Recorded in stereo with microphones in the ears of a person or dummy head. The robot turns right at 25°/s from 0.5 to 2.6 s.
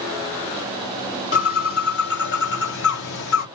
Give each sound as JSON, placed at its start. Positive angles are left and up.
{"t": 1.3, "sound": "a bird", "azimuth_deg": 50, "distance_m": 1.1}